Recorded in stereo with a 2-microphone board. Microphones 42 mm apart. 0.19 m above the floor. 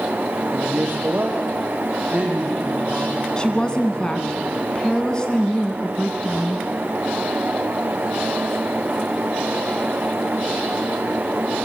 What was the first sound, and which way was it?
A man speaking, 60° right (ahead or behind).